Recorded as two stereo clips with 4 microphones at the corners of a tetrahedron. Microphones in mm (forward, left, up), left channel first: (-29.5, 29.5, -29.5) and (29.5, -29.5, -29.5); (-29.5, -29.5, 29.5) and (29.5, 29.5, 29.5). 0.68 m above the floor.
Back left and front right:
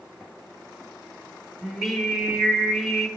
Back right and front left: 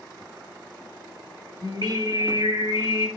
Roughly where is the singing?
Ahead left.